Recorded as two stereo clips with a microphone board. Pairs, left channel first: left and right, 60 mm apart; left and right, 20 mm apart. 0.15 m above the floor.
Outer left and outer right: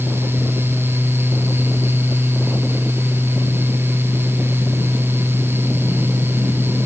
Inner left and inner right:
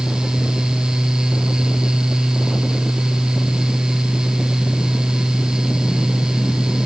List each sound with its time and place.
Only background noise.